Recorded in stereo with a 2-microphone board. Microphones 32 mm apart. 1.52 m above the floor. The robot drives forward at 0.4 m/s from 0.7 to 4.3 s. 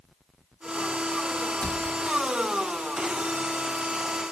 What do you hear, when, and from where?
1.6 s a cupboard door: 35° left (ahead or behind), 2.5 m